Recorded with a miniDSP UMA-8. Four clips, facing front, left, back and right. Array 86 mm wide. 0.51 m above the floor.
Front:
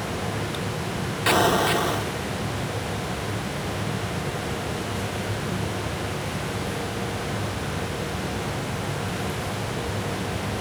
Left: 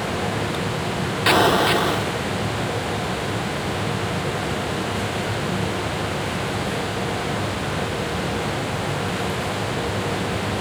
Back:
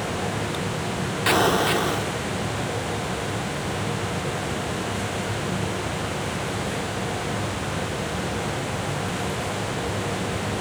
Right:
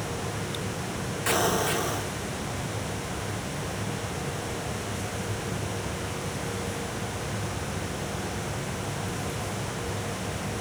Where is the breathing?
I don't hear breathing.